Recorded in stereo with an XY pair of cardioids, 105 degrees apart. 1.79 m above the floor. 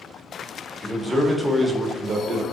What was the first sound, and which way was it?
A man speaking, 15° left.